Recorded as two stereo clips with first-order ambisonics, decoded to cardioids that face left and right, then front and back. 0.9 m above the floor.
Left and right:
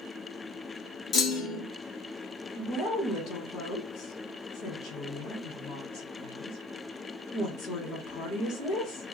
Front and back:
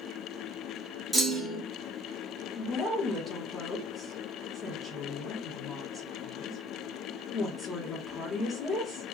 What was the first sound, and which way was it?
A clunk, 100° left.